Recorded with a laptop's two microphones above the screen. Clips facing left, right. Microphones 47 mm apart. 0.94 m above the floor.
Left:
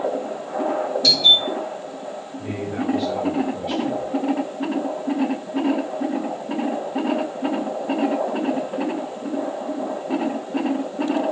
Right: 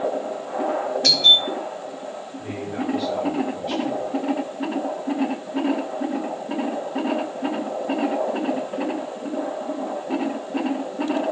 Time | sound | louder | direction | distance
1.0 | a doorbell | even | 50° right (ahead or behind) | 5.5 m
2.4 | a man speaking | left 2 dB | 5° left (ahead or behind) | 5.5 m